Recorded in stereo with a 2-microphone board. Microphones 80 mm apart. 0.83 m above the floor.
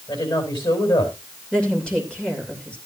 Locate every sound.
0.1 s a woman speaking: 80° left, 5 m
1.5 s a woman speaking: 15° left (ahead or behind), 2.5 m